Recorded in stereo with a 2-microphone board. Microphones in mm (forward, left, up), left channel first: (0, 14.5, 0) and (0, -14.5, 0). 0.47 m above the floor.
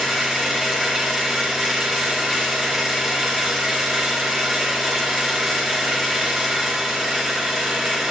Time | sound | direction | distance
0.0 | an engine running | 10° right (ahead or behind) | 3.5 m